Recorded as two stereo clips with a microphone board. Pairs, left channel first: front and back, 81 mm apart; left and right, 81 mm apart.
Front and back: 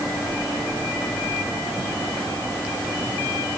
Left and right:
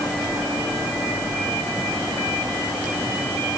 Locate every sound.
Only background noise.